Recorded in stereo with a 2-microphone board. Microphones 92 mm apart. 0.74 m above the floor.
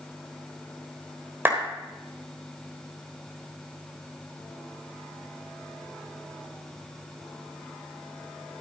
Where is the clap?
20° right (ahead or behind), 3.5 m.